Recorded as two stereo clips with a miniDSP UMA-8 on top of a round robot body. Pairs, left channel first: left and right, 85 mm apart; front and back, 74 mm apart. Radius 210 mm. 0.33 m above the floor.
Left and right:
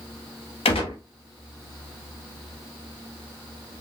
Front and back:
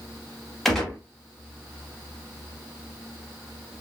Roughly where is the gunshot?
Left.